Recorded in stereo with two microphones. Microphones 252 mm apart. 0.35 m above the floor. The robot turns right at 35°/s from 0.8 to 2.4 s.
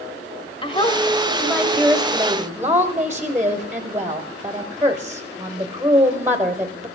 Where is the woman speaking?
140° left, 1.1 m; by 6.9 s 165° right, 1.1 m.